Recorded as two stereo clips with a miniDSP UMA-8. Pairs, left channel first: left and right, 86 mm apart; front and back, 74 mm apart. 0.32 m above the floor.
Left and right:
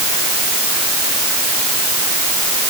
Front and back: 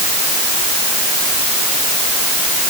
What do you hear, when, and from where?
Only background noise.